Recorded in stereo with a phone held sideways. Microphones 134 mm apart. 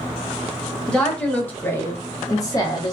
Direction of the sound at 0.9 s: 5° left (ahead or behind).